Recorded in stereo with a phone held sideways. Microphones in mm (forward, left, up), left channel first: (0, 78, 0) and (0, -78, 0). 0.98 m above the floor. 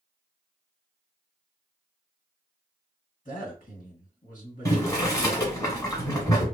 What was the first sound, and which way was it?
A man speaking, 55° left (ahead or behind).